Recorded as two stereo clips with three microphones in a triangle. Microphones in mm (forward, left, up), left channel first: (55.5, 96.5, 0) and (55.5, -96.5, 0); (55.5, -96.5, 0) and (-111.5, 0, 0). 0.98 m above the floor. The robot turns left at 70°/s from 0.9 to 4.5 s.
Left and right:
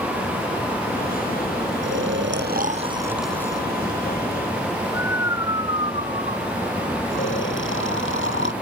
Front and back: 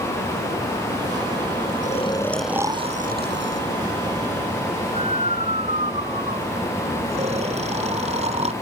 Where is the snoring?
80° right; by 8.5 s 95° left.